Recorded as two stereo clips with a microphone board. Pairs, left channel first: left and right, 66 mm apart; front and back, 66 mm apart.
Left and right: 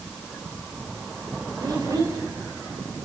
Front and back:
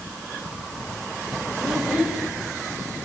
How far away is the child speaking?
About 4.5 m.